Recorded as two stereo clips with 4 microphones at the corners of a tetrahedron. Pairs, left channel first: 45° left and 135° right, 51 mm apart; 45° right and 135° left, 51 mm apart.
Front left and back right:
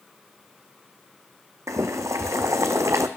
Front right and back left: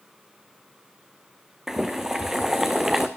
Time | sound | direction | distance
1.7 | boiling | 140° right | 1.3 m